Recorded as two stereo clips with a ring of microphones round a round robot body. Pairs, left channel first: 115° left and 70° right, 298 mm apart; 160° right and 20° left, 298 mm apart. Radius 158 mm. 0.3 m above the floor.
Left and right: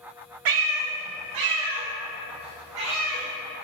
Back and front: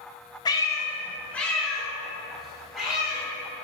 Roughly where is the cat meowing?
Right.